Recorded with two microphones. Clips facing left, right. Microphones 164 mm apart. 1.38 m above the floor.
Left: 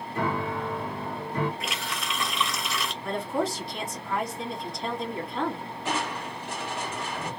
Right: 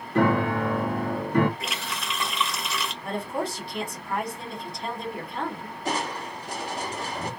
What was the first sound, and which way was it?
A piano, 65° right (ahead or behind).